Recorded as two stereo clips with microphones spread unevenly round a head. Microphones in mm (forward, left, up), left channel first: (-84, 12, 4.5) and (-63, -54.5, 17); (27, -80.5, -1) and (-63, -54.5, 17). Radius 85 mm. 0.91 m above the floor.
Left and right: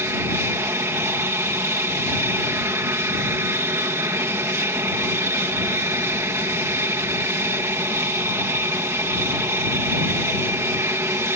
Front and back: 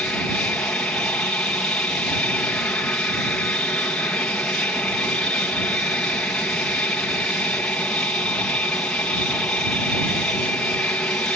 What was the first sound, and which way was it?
An aircraft, 75° right.